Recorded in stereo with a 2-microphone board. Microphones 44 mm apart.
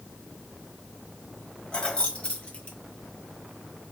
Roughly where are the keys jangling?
Left.